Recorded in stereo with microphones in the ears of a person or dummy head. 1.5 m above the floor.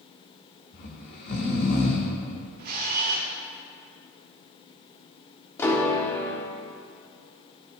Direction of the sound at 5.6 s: 15° left (ahead or behind).